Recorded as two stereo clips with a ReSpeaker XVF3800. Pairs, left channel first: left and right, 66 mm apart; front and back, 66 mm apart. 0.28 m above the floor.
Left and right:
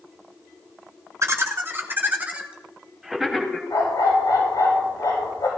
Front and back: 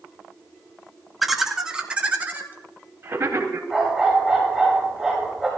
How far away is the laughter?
About 1.7 m.